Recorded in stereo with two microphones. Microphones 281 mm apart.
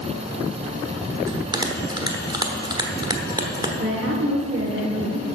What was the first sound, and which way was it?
A bell, 15° right (ahead or behind).